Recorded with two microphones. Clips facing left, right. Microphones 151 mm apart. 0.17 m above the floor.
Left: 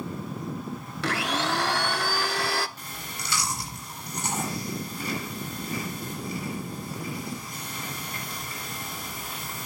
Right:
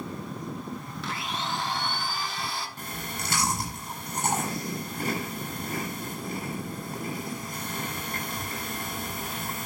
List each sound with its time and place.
1.0 s a blender: 75° left (ahead or behind), 0.5 m
2.8 s chewing: 50° right (ahead or behind), 10 m